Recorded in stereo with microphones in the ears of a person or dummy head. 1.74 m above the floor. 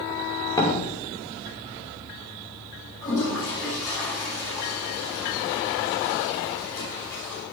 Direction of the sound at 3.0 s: 10° left (ahead or behind).